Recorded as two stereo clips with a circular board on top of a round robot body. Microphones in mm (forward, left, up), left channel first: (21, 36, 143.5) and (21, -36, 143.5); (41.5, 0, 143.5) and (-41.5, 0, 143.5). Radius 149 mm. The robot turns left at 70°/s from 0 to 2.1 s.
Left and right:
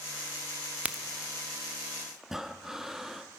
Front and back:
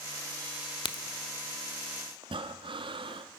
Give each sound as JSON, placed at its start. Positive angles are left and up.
{"t": 0.8, "sound": "a crack", "azimuth_deg": -15, "distance_m": 1.1}
{"t": 2.2, "sound": "breathing", "azimuth_deg": -175, "distance_m": 1.0}